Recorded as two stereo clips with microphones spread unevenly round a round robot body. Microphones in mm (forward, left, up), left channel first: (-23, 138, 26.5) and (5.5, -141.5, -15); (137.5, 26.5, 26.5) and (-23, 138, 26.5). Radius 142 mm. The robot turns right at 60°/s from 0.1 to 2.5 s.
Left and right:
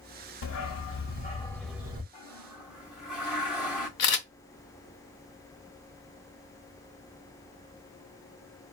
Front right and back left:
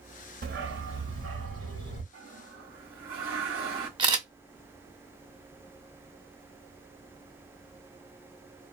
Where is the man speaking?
No man speaking in this recording.